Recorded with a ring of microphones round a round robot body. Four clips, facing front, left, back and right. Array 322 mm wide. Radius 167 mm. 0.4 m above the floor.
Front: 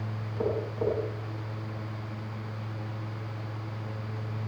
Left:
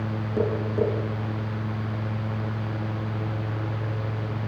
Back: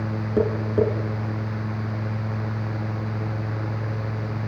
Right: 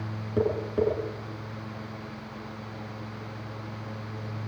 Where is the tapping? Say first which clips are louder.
Left 1 dB, back 9 dB; 175° right, 6.5 m.